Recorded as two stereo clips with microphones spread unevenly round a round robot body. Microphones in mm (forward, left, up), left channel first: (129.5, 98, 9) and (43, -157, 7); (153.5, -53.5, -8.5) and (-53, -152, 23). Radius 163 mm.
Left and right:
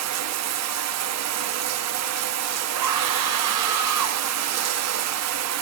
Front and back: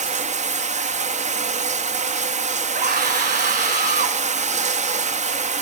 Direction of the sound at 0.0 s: 90° right.